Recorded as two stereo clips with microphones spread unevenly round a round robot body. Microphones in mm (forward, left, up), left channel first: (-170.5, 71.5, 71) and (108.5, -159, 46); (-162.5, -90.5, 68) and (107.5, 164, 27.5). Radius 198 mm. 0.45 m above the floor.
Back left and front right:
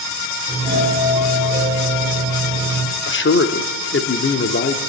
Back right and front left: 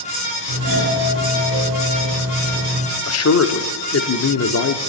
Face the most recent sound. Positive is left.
turn(degrees=-170)